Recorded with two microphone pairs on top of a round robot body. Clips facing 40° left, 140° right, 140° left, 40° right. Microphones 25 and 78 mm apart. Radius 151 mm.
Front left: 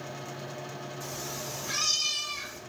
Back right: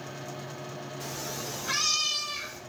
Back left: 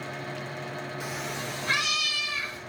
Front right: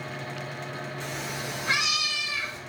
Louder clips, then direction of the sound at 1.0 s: Back right 2 dB, even; 140° right.